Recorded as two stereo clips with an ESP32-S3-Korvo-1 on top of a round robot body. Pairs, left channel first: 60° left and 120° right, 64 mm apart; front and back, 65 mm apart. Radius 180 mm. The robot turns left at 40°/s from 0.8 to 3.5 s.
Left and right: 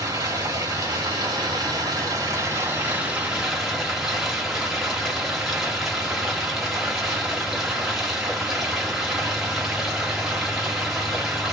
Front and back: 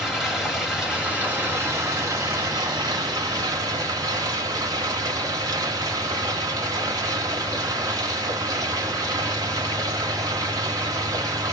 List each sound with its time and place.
0.0 s running water: 95° right, 1.3 m; by 11.5 s 155° left, 1.3 m